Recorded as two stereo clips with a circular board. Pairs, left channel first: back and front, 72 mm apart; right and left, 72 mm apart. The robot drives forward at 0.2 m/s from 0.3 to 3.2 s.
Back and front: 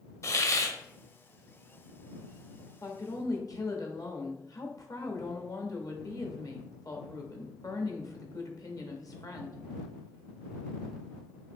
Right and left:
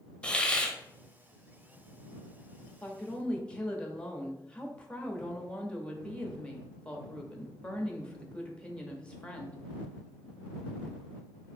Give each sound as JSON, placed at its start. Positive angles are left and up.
{"t": 0.2, "sound": "a hiss", "azimuth_deg": -160, "distance_m": 0.6}
{"t": 2.8, "sound": "a woman speaking", "azimuth_deg": -160, "distance_m": 0.8}